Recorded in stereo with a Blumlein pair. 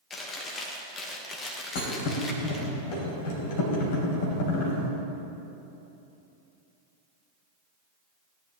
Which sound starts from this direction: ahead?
Chewing, at 0.1 s.